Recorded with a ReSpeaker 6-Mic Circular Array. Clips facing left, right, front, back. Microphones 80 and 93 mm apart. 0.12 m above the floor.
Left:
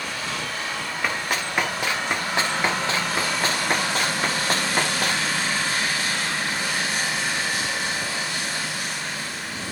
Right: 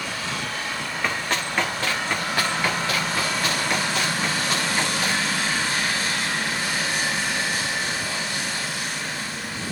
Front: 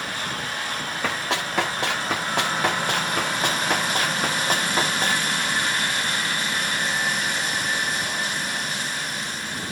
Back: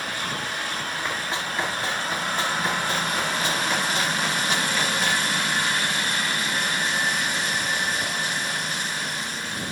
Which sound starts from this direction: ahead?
Running footsteps, at 1.0 s.